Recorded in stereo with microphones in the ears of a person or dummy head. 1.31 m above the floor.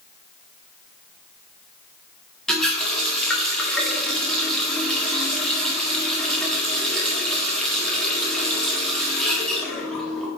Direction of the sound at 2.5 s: 5° right (ahead or behind).